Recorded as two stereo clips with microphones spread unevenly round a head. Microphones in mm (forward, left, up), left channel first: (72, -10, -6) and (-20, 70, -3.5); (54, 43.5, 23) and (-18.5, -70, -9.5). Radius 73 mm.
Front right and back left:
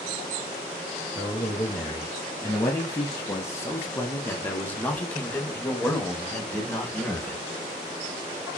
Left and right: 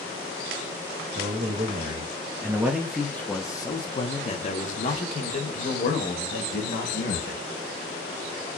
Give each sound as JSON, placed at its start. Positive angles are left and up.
{"t": 1.1, "sound": "a man speaking", "azimuth_deg": -115, "distance_m": 1.3}